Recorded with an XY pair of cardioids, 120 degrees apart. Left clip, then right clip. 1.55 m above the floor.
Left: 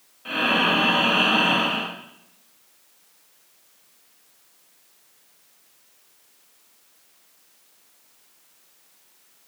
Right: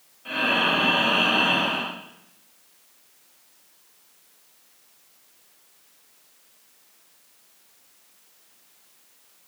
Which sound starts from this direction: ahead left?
Breathing, at 0.2 s.